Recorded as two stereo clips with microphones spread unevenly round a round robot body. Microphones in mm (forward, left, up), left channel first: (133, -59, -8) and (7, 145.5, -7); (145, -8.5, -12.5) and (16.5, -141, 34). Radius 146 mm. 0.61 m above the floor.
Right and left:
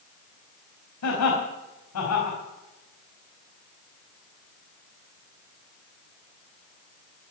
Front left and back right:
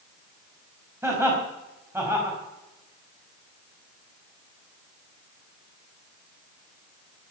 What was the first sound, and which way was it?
Laughter, 55° right.